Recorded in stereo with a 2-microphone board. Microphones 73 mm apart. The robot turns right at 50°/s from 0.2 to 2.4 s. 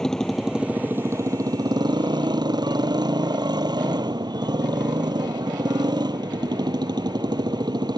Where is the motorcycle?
175° left; by 8.0 s 75° right.